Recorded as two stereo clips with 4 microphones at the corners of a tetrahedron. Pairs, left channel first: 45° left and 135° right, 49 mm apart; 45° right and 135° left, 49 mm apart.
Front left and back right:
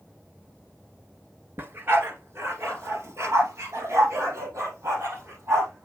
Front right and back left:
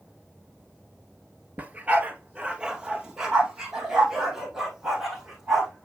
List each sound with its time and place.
1.6 s a dog barking: 175° right, 1.2 m; by 5.8 s 140° right, 3.5 m